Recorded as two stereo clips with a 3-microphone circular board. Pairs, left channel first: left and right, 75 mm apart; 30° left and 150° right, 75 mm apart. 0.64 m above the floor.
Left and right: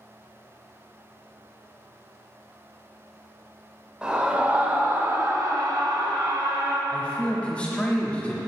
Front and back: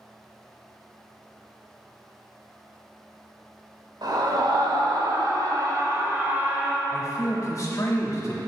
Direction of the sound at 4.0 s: 165° right.